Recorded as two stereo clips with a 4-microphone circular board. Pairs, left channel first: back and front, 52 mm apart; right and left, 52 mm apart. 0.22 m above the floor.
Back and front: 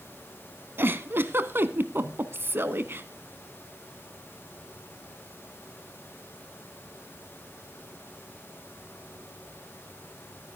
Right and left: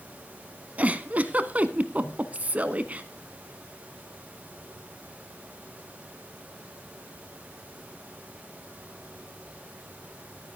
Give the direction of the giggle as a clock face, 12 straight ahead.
11 o'clock.